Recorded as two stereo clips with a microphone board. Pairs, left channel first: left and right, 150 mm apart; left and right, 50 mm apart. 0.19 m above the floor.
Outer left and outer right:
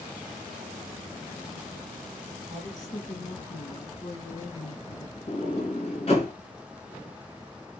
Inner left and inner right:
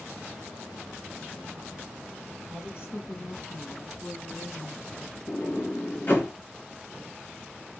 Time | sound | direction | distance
2.5 | a woman speaking | 55° left (ahead or behind) | 3.5 m
5.3 | a sliding door | 45° left (ahead or behind) | 2.5 m